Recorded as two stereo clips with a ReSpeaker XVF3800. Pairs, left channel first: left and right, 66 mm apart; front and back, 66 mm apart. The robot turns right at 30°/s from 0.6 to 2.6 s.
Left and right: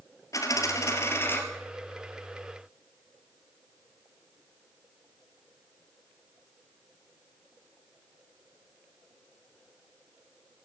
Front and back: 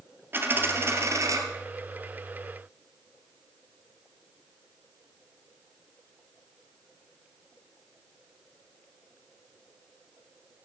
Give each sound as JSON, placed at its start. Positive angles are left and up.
{"t": 0.3, "sound": "a dropped coin", "azimuth_deg": 125, "distance_m": 2.0}